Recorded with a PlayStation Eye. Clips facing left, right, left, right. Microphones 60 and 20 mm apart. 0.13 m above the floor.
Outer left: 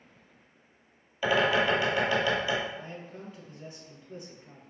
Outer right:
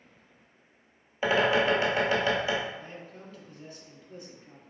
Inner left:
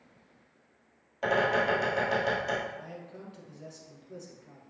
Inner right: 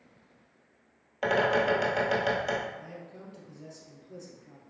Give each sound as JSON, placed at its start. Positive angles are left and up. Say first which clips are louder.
{"t": 1.2, "sound": "a bird", "louder": "outer right 1 dB, inner right 1 dB", "side_deg": -25, "distance_m": 1.6}
{"t": 2.8, "sound": "a man speaking", "louder": "outer left 2 dB, inner left 1 dB", "side_deg": 20, "distance_m": 1.3}